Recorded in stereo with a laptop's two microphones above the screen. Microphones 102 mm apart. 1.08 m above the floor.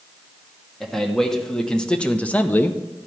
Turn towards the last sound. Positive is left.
turn(degrees=20)  # may be behind; listen again after turning